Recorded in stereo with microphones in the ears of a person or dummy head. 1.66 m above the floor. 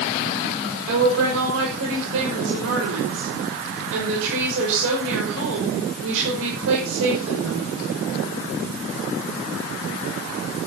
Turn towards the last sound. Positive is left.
turn(degrees=-75)  # may be behind; listen again after turning